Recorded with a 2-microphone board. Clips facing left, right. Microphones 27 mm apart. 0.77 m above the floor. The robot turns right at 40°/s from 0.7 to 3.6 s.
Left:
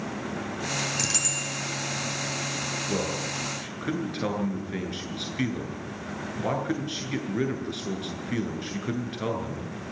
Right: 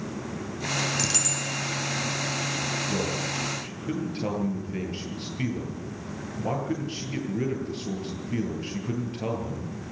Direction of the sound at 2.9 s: 65° left (ahead or behind).